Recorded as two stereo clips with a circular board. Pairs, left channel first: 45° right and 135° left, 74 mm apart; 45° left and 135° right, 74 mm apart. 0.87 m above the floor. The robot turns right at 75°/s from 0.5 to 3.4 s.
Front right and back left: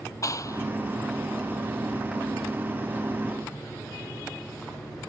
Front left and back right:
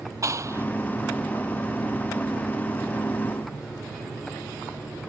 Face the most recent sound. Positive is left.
turn(degrees=130)